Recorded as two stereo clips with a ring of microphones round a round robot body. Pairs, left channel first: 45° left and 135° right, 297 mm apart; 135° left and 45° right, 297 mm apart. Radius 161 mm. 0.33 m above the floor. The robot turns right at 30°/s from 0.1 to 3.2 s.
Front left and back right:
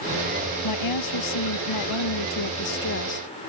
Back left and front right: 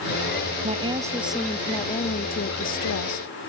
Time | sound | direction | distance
0.6 | a woman speaking | 25° left | ?